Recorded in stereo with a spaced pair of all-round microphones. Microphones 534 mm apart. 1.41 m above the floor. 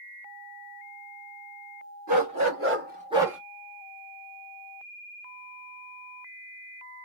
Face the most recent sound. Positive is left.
turn(degrees=0)  # may be behind; listen again after turning